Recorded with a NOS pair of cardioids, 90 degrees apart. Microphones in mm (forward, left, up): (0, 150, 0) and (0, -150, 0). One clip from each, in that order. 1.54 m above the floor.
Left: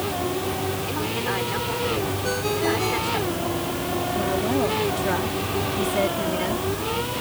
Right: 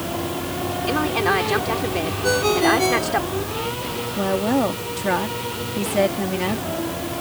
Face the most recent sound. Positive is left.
turn(degrees=-40)